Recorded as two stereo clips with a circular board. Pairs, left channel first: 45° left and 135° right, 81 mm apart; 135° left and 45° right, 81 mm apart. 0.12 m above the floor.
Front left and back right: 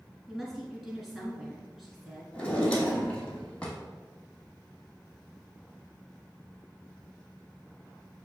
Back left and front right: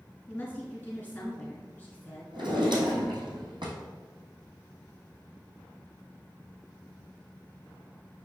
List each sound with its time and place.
0.3 s a woman speaking: 140° left, 1.2 m
2.3 s a drawer: 35° right, 1.1 m